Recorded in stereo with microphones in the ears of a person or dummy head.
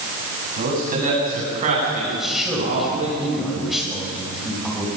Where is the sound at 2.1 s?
Centre (ahead or behind), 7 m.